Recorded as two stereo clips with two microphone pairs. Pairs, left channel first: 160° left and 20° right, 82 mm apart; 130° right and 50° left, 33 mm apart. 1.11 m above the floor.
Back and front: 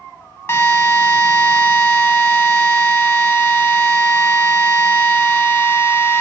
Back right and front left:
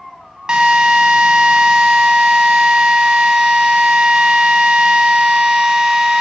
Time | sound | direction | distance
0.5 | a drill | 105° left | 0.8 m